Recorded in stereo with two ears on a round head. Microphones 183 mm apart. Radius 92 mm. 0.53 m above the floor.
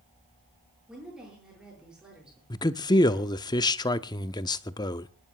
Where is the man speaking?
20° left (ahead or behind), 0.6 m.